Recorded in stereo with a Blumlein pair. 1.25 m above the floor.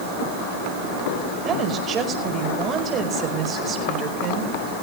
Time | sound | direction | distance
1.4 | a woman speaking | 25° right | 5 m